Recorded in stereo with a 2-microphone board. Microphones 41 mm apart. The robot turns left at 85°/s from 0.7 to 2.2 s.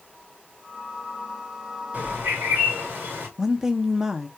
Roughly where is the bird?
Right.